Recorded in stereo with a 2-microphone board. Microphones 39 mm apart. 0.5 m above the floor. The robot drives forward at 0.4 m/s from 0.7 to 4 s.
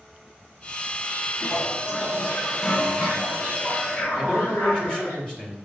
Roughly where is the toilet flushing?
Left.